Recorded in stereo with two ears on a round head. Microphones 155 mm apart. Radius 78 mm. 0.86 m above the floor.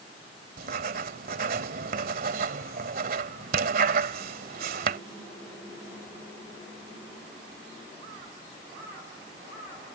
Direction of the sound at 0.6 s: 60° right (ahead or behind).